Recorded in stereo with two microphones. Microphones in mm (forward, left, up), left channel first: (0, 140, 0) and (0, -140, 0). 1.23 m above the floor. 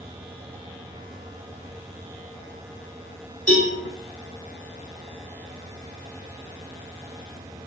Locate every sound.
3.5 s a cowbell: 60° right (ahead or behind), 2 m